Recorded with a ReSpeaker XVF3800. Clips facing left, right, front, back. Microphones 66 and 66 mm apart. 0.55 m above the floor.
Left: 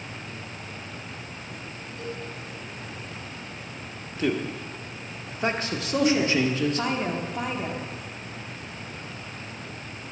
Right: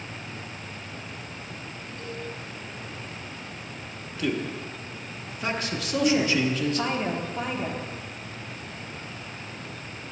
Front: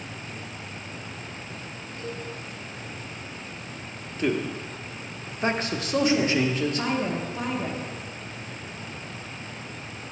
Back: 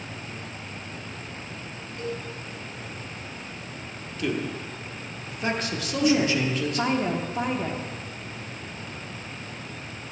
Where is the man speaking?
40° left, 0.9 m.